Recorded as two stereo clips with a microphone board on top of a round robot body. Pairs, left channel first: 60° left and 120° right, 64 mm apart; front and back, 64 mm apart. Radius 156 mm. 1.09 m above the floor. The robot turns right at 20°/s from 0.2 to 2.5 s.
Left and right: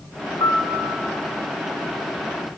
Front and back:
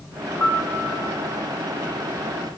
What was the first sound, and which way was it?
A piano, 60° left.